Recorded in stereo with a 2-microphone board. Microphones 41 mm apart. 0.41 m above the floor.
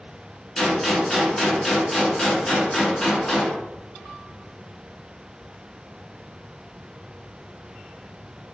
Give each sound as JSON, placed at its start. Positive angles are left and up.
{"t": 0.6, "sound": "a gunshot", "side_deg": 15, "distance_m": 0.8}